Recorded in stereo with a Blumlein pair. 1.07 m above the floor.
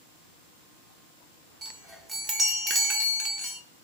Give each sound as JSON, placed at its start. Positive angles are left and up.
{"t": 1.6, "sound": "a chime", "azimuth_deg": -15, "distance_m": 0.8}